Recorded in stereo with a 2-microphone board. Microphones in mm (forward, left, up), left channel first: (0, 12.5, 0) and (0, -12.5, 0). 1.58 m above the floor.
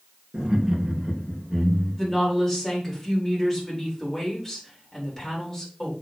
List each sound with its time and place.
0.3 s laughter: 25° right (ahead or behind), 1.9 m; by 2.2 s 5° right (ahead or behind), 3 m
2.0 s a woman speaking: 15° left (ahead or behind), 4.5 m